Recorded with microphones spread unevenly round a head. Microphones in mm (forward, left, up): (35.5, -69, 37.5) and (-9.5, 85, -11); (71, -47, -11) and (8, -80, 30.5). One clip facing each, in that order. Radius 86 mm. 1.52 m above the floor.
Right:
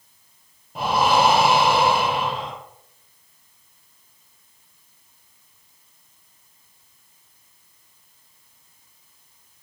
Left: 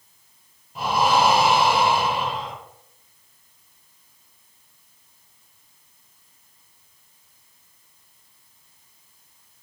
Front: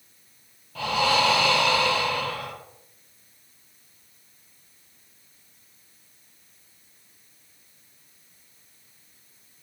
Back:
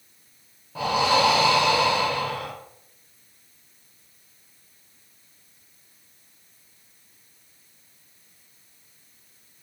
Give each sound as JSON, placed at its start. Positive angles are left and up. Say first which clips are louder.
{"t": 0.8, "sound": "breathing", "louder": "right 1 dB, back 2 dB", "azimuth_deg": -100, "distance_m": 0.5}